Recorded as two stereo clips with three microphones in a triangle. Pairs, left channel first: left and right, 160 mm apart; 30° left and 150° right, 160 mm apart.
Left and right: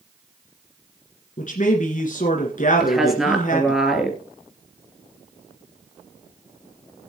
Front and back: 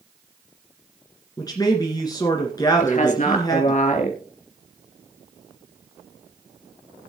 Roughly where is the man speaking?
Left.